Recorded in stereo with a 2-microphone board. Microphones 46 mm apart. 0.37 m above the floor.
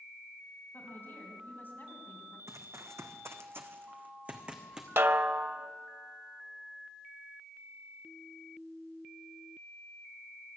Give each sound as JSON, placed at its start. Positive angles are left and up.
{"t": 0.7, "sound": "a woman speaking", "side_deg": 45, "distance_m": 3.0}
{"t": 2.5, "sound": "running footsteps", "side_deg": -75, "distance_m": 1.5}
{"t": 5.0, "sound": "a snare drum", "side_deg": -55, "distance_m": 0.6}